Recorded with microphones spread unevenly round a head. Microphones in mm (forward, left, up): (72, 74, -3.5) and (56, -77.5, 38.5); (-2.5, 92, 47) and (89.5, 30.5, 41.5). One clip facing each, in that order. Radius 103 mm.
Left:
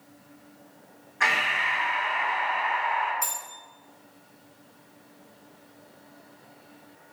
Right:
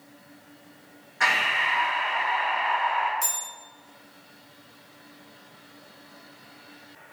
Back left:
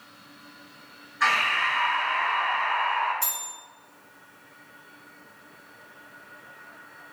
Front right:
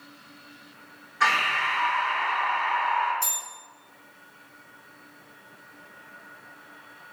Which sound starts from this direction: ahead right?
Breathing, at 1.2 s.